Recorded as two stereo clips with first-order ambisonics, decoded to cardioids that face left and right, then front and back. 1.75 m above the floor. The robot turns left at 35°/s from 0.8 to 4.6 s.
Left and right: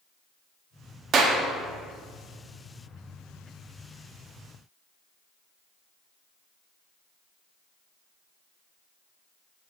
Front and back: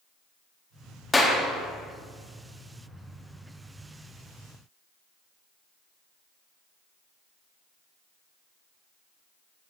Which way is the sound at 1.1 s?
75° right.